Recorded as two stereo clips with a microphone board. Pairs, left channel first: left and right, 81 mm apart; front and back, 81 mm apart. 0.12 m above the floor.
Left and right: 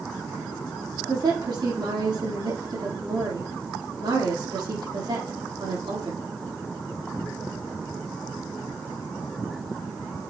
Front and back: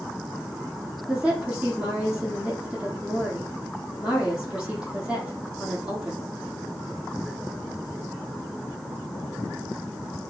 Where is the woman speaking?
105° right, 4.5 m.